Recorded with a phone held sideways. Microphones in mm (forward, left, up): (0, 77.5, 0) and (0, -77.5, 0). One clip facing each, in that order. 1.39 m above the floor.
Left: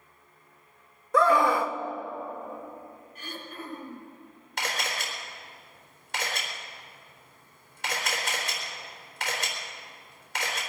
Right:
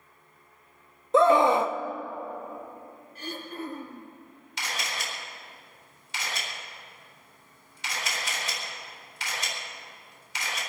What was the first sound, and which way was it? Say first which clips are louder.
A scream: right 3 dB; 20° right (ahead or behind).